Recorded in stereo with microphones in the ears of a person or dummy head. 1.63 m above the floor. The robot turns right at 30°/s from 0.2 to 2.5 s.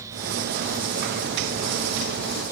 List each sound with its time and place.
Only background noise.